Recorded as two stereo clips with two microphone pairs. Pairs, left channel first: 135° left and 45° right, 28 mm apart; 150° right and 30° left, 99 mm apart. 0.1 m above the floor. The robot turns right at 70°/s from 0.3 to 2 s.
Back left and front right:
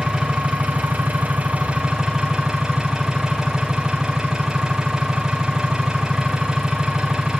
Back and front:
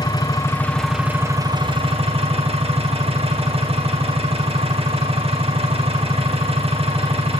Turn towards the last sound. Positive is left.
turn(degrees=20)